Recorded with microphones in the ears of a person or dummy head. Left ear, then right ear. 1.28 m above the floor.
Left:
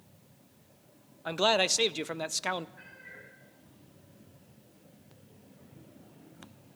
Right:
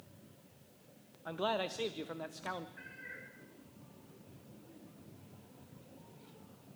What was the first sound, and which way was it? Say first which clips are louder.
A man speaking: left 10 dB; 70° left (ahead or behind).